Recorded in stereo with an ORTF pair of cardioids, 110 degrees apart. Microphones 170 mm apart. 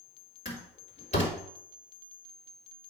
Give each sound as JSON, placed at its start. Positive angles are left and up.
{"t": 0.5, "sound": "a door slam", "azimuth_deg": 45, "distance_m": 3.5}